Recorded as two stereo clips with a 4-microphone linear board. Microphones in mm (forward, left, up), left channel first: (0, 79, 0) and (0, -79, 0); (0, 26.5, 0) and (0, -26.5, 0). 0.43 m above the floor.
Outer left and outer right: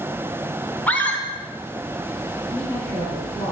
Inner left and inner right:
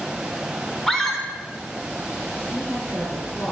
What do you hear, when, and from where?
0.9 s a scream: 10° left (ahead or behind), 1.2 m
2.5 s a woman speaking: 25° left (ahead or behind), 4 m